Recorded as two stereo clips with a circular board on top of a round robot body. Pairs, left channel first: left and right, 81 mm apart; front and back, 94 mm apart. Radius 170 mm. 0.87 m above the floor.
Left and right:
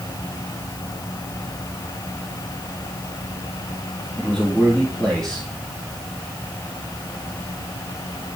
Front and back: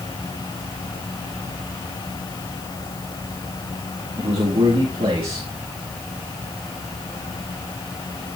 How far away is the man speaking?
About 2.5 m.